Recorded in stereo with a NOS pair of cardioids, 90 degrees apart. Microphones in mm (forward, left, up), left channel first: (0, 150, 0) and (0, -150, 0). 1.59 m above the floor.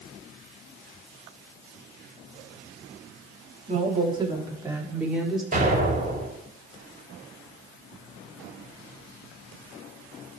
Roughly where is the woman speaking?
Ahead right.